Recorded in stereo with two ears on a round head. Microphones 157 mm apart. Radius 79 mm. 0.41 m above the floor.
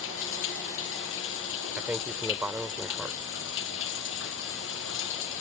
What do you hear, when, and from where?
0.0 s running water: 85° left
1.8 s a man speaking: 10° right (ahead or behind)